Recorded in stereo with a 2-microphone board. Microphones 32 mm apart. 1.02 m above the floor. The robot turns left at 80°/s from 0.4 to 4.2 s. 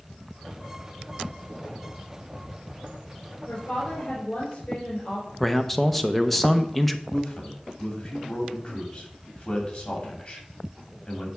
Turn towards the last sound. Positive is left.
turn(degrees=45)  # may be behind; listen again after turning